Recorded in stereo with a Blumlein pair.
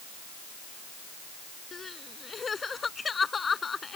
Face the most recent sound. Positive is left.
turn(degrees=15)